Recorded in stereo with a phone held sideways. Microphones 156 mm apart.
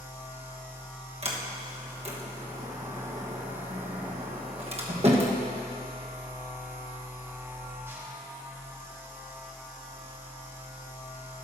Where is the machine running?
15° right (ahead or behind), 1.5 m.